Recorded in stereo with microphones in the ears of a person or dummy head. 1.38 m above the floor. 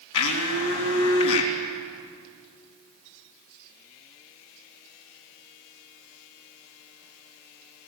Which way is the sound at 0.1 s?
70° left (ahead or behind).